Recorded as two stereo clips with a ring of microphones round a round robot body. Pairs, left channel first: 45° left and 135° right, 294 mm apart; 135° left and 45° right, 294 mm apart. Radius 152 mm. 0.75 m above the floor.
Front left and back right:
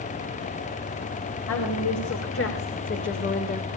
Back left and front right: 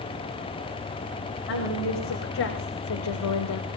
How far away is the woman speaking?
About 4 m.